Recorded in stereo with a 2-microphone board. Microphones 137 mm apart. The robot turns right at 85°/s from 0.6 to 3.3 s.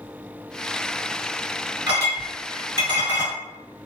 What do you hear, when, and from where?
1.9 s a clink: 25° right (ahead or behind), 1.8 m; by 3.3 s 55° left (ahead or behind), 1.8 m